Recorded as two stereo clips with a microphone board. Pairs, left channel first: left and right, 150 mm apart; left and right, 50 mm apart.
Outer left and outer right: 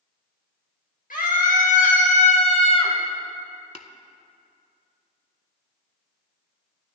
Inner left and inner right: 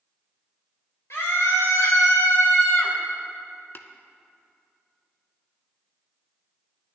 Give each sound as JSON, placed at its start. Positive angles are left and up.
{"t": 1.1, "sound": "a scream", "side_deg": 70, "distance_m": 3.0}
{"t": 3.8, "sound": "tapping", "side_deg": 50, "distance_m": 0.6}